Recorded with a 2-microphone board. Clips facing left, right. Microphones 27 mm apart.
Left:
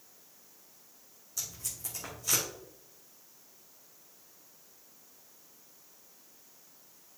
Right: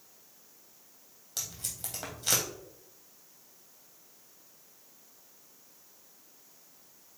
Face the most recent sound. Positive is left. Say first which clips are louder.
# right 1 dB
turn(degrees=-65)  # may be behind; listen again after turning